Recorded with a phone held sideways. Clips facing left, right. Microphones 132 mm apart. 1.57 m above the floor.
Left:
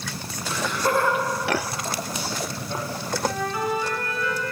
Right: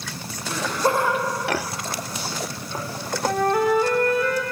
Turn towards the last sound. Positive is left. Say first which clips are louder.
# right 9 dB
turn(degrees=-55)  # may be behind; listen again after turning